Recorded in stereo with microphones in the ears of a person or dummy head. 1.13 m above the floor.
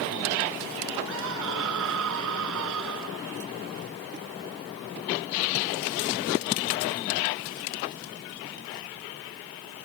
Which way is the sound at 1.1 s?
75° right (ahead or behind).